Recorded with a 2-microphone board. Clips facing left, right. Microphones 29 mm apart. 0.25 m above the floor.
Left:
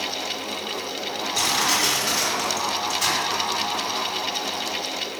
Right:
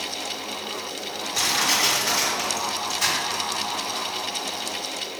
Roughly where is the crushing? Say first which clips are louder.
Even; centre.